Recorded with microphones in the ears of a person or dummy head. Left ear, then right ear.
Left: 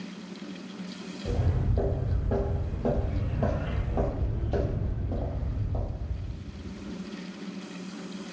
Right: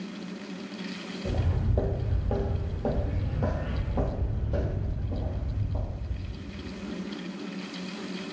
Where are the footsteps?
40° right (ahead or behind), 1.4 m; by 6.3 s 55° left (ahead or behind), 2 m.